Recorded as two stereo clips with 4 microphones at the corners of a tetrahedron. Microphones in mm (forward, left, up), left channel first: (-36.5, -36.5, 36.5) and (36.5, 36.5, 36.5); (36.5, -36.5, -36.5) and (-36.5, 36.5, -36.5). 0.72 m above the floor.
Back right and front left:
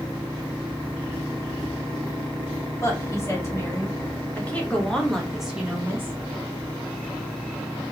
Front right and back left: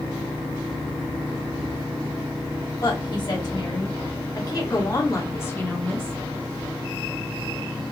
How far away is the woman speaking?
About 1.9 m.